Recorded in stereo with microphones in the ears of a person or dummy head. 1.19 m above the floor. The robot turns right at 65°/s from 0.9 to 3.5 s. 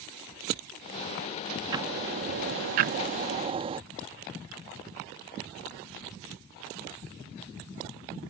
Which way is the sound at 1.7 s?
160° right.